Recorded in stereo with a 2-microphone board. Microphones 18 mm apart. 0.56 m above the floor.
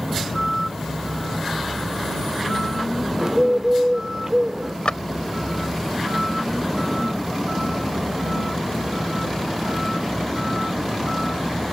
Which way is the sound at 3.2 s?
25° right (ahead or behind).